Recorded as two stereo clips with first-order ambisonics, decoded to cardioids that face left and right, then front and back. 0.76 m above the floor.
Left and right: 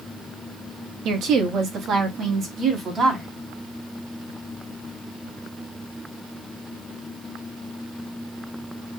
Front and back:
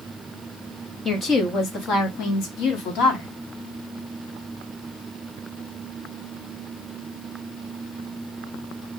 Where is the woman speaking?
70° right, 0.7 m; by 3.3 s 20° right, 1.6 m.